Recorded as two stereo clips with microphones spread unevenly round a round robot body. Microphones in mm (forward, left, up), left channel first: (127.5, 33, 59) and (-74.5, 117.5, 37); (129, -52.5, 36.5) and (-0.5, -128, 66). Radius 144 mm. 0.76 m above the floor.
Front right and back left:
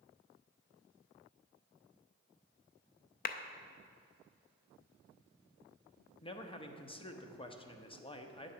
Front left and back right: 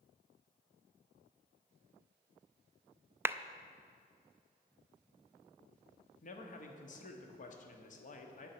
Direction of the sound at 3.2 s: 65° right.